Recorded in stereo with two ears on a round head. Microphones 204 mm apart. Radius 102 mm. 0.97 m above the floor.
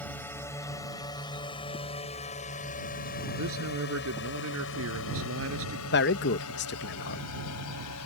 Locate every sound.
0.0 s a drone: 10° left (ahead or behind); by 8.1 s 80° left
3.4 s a man speaking: 65° right (ahead or behind)
5.9 s a man speaking: 50° left (ahead or behind)